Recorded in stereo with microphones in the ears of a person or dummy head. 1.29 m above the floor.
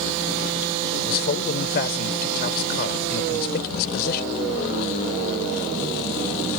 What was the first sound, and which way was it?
A man speaking, 55° left (ahead or behind).